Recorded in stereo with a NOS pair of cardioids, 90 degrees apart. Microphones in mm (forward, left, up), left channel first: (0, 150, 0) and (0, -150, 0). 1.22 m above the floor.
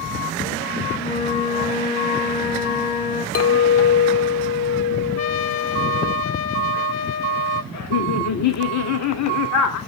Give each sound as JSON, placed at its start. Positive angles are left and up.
{"t": 1.0, "sound": "a flute", "azimuth_deg": 60, "distance_m": 2.5}
{"t": 3.4, "sound": "a clink", "azimuth_deg": 50, "distance_m": 0.8}
{"t": 5.2, "sound": "a trumpet", "azimuth_deg": 70, "distance_m": 2.5}
{"t": 7.7, "sound": "laughter", "azimuth_deg": 65, "distance_m": 3.0}